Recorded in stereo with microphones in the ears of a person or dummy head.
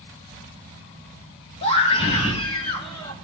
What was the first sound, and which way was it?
A scream, 30° left (ahead or behind).